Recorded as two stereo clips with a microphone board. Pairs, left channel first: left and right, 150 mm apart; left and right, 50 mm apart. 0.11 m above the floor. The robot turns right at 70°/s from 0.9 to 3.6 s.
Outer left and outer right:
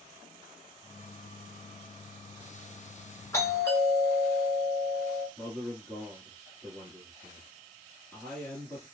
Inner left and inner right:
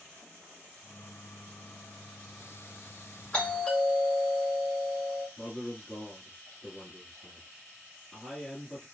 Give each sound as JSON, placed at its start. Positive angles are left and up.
{"t": 3.3, "sound": "a doorbell", "side_deg": 20, "distance_m": 1.6}
{"t": 5.4, "sound": "a man speaking", "side_deg": 10, "distance_m": 1.1}